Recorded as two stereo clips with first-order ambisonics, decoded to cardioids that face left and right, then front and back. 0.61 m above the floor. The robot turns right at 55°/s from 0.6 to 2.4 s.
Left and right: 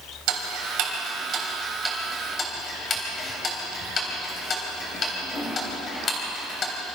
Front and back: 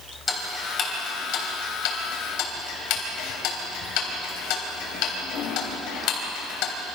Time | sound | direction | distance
0.3 | ticking | 70° right | 3.5 m